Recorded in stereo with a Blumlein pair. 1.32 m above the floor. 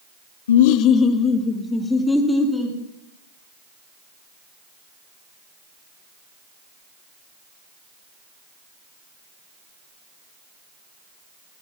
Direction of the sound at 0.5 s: 65° left.